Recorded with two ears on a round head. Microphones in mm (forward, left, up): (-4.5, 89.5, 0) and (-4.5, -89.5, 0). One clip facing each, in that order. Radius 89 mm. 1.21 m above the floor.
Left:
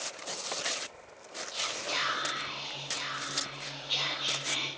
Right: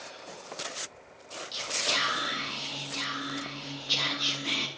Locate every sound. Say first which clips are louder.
1.5 s whispering: right 3 dB; 60° right (ahead or behind), 1.7 m